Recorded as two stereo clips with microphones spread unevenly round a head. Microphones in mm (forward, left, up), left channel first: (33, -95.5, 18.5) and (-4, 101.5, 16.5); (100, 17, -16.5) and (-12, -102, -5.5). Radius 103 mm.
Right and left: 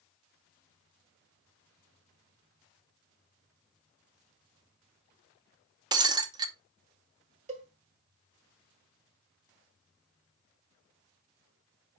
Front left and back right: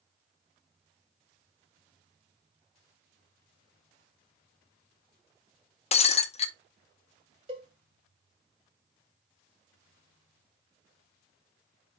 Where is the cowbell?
160° left, 1.1 m.